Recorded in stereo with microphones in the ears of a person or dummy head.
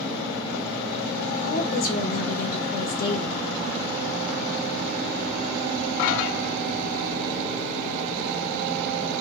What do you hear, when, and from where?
1.4 s a woman speaking: 45° left (ahead or behind), 1.3 m